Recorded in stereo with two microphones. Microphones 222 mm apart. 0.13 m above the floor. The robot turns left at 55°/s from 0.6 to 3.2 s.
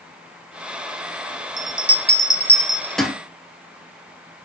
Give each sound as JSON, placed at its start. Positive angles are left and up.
{"t": 1.6, "sound": "a bell", "side_deg": 60, "distance_m": 1.0}